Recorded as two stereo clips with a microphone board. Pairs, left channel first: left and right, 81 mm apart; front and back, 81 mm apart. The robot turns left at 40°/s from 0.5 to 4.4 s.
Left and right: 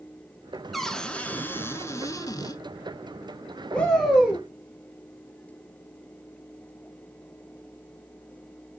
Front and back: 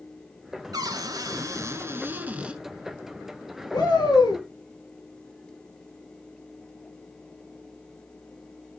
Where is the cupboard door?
Straight behind, 0.7 m; by 2.6 s 105° left, 0.7 m.